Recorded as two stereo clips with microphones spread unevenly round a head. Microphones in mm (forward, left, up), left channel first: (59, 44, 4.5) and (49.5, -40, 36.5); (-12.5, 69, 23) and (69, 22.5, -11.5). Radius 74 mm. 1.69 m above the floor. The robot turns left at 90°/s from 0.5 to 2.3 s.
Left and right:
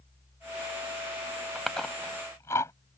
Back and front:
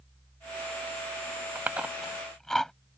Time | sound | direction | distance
1.6 | chewing | 120° right | ?